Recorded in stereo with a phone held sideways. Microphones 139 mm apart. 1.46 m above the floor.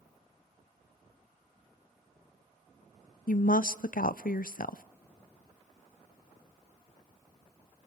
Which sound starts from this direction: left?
A woman speaking, at 3.3 s.